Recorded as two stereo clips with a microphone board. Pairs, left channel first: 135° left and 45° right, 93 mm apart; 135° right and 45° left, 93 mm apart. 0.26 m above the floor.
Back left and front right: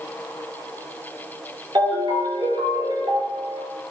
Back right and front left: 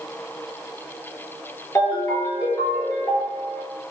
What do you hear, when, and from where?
1.8 s a ringtone: 85° right, 3 m